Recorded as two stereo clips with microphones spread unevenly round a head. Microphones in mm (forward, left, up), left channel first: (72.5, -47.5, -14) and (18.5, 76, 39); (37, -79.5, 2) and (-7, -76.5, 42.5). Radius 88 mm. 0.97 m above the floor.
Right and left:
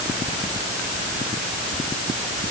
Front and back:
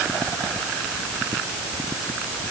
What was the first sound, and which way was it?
Only background noise.